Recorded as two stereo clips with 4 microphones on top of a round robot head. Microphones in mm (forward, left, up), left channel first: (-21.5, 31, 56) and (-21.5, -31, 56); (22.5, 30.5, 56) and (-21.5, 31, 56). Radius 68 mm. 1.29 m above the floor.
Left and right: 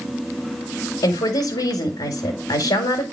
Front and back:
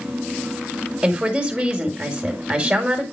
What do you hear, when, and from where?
1.0 s a woman speaking: 105° left, 1.9 m